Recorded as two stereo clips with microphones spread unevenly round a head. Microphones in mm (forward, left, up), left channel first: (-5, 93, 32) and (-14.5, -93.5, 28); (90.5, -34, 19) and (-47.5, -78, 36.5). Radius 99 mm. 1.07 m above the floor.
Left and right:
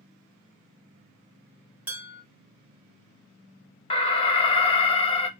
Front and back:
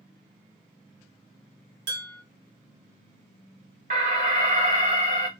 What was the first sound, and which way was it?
Dishes clattering, 175° right.